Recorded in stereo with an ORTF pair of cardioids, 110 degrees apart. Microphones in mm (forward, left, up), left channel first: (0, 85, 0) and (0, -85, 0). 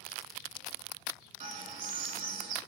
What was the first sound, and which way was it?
A bird, 50° right.